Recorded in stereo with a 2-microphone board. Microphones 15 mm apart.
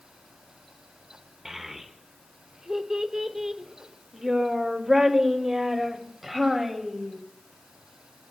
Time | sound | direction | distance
1.4 | a child speaking | 30° right (ahead or behind) | 1.3 m